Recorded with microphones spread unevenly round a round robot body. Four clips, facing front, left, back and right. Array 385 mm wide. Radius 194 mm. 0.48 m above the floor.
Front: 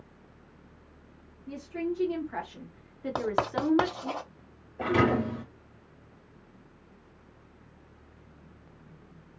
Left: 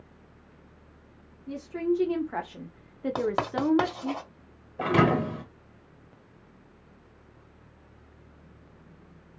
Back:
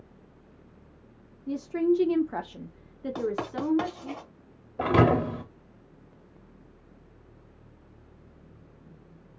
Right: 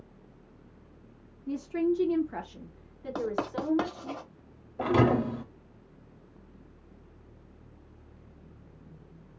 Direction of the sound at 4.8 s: 160° left.